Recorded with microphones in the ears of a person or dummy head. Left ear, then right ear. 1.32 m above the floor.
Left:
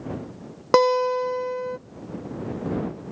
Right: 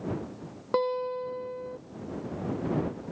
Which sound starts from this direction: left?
A guitar, at 0.7 s.